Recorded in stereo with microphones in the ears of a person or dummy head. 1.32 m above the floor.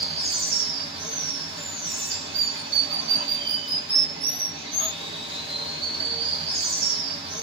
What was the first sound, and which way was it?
Running water, 40° right (ahead or behind).